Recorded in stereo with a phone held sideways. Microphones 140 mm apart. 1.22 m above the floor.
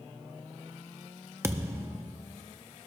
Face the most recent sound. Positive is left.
turn(degrees=-20)  # may be behind; listen again after turning